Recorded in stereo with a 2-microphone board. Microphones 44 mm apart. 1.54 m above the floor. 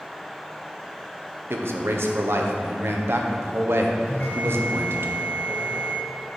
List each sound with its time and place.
1.5 s a man speaking: 65° right (ahead or behind), 0.8 m
4.1 s a bell: 35° left (ahead or behind), 2.5 m